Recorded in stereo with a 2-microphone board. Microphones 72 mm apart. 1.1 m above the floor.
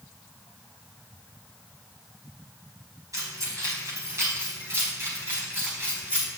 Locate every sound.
3.1 s keys jangling: 50° right (ahead or behind), 5 m; by 6.3 s 25° right (ahead or behind), 5 m